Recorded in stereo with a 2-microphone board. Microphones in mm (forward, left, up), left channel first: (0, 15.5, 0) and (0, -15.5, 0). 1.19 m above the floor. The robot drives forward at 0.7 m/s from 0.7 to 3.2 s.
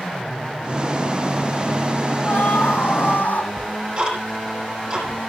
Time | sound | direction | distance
2.2 | a scream | 70° left (ahead or behind) | 9 m
3.6 | ticking | 25° right (ahead or behind) | 8 m